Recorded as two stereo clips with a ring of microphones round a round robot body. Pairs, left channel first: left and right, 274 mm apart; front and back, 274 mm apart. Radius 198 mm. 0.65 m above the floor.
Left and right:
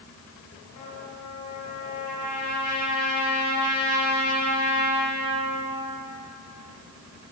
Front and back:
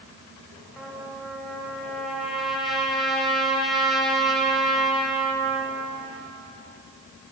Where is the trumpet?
90° left, 3.5 m.